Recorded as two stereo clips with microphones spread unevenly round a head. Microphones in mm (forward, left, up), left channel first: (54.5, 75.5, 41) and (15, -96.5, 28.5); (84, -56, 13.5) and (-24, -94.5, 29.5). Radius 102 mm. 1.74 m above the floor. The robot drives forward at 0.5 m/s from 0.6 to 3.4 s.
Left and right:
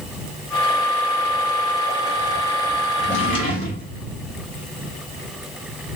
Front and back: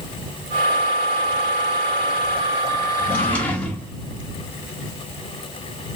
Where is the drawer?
80° left, 1.0 m; by 3.9 s 105° left, 1.0 m.